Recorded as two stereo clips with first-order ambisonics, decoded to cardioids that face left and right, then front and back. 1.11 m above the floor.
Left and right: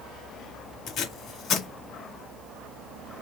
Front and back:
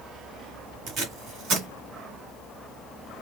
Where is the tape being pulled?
140° left, 2.5 m.